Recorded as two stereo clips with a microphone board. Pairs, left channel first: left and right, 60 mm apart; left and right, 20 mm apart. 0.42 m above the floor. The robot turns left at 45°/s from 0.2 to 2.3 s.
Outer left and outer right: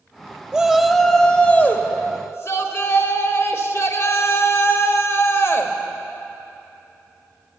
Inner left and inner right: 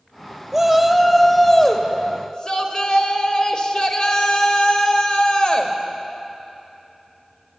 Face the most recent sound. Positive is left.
turn(degrees=120)